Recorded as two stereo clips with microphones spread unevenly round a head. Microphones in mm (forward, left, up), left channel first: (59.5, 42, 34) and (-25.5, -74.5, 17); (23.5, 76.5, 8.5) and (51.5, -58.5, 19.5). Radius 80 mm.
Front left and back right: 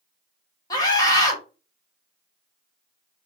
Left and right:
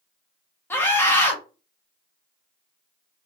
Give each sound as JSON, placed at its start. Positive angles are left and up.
{"t": 0.7, "sound": "a scream", "azimuth_deg": 80, "distance_m": 0.9}